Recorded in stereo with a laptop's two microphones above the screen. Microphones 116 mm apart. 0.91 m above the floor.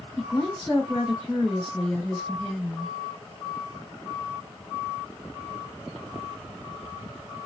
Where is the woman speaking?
15° left (ahead or behind), 2.5 m.